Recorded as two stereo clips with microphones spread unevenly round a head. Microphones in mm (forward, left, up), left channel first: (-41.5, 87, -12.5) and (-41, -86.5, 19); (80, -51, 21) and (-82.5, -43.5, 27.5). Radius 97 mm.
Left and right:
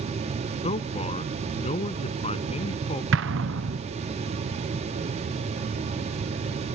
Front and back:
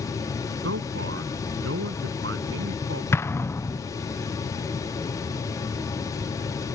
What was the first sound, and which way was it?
A man speaking, 145° left.